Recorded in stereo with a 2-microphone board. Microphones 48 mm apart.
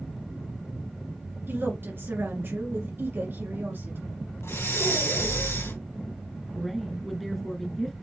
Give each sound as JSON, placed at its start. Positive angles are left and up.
{"t": 1.5, "sound": "a woman speaking", "side_deg": -50, "distance_m": 2.0}
{"t": 4.4, "sound": "breathing", "side_deg": 65, "distance_m": 3.0}
{"t": 6.5, "sound": "a woman speaking", "side_deg": 0, "distance_m": 1.7}